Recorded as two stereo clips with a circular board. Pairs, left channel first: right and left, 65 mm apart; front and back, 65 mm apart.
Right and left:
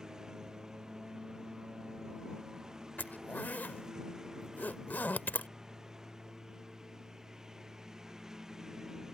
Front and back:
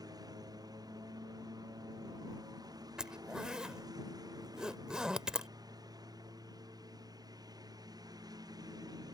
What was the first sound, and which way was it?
A lawn mower, 170° left.